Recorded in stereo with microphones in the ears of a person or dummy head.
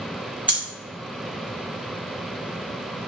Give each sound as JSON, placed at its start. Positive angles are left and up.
{"t": 0.5, "sound": "breathing", "side_deg": -5, "distance_m": 1.4}